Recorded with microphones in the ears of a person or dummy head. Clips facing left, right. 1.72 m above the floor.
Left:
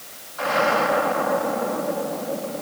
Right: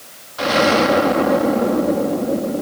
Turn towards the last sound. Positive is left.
turn(degrees=-50)  # may be behind; listen again after turning